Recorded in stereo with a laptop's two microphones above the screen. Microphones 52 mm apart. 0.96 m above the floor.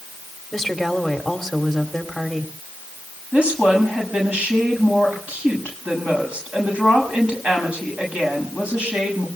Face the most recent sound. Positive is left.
turn(degrees=-20)  # may be behind; listen again after turning